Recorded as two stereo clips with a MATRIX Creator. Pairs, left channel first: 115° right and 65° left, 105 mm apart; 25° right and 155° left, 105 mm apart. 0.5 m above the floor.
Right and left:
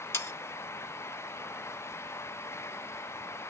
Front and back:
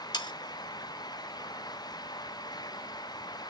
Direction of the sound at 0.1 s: 55° right.